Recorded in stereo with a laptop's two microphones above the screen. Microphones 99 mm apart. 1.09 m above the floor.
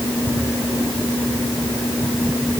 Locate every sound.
Only background noise.